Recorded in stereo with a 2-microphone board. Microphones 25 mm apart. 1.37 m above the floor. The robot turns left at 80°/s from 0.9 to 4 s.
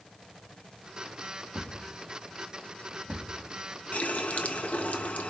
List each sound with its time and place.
1.6 s a thud: 45° right (ahead or behind), 4.5 m; by 3.4 s 10° left (ahead or behind), 4.5 m
3.9 s a running tap: 75° left (ahead or behind), 1.1 m